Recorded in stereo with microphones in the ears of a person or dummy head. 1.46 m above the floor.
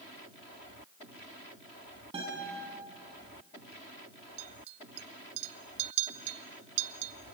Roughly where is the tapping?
No tapping in this recording.